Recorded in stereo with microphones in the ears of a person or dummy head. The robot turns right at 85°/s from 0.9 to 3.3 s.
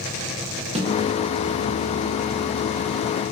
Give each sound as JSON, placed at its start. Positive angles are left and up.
{"t": 0.8, "sound": "a snare drum", "side_deg": -35, "distance_m": 0.6}